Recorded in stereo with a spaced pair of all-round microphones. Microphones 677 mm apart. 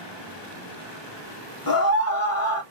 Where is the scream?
30° left (ahead or behind), 1.0 m.